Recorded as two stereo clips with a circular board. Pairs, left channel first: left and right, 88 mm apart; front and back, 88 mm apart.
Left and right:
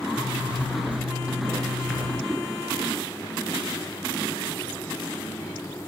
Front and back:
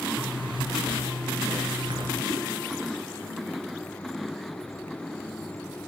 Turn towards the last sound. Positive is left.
turn(degrees=155)